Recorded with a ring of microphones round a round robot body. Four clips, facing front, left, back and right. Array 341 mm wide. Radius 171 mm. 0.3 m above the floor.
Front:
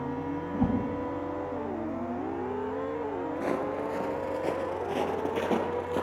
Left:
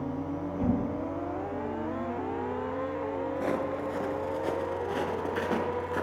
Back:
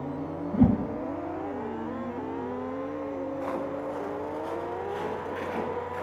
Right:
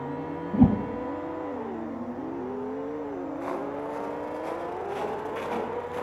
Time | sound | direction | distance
0.5 | a whoosh | 120° right | 3 m
3.4 | footsteps | 45° left | 4.5 m